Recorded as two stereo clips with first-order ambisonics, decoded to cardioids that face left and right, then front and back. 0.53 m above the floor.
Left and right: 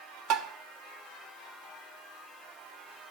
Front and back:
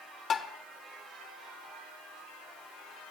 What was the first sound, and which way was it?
Tapping, 60° right.